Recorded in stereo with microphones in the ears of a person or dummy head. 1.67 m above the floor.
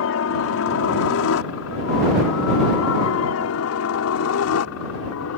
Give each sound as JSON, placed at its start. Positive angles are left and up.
{"t": 0.0, "sound": "a helicopter", "side_deg": 70}